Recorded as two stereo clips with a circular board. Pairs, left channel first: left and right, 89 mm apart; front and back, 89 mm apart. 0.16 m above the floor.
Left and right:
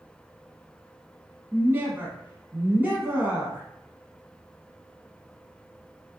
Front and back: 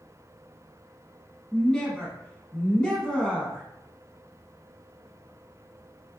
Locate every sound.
1.5 s a woman speaking: 70° right, 1.1 m